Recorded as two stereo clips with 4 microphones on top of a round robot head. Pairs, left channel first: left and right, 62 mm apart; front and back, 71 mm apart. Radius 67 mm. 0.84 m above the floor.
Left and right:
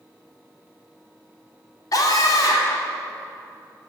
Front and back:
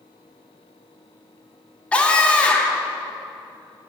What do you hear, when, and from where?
1.9 s a scream: 70° left, 2 m